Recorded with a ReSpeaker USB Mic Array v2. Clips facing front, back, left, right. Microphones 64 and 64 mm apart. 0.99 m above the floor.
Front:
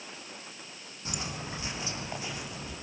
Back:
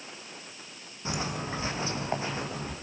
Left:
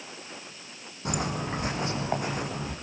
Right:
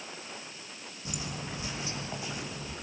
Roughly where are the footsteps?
Behind left.